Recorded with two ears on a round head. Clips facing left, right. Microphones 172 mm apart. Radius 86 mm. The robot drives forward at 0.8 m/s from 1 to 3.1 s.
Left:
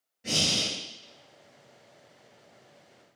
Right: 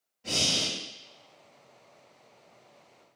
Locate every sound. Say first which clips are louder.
0.2 s breathing: left 1 dB; 20° left (ahead or behind), 2.5 m